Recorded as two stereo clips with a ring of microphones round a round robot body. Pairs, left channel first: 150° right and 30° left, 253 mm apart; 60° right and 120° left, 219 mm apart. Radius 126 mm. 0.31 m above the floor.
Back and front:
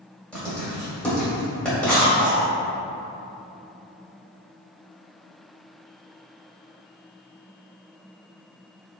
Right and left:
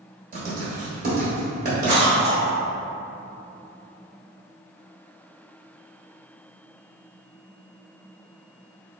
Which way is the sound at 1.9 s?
75° left.